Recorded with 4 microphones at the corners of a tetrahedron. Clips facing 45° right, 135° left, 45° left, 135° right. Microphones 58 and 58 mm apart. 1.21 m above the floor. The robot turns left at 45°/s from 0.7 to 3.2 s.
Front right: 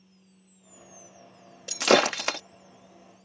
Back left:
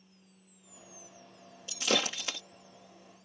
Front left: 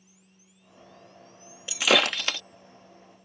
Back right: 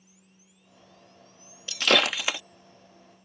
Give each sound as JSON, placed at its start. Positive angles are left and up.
{"t": 1.7, "sound": "breaking glass", "azimuth_deg": -30}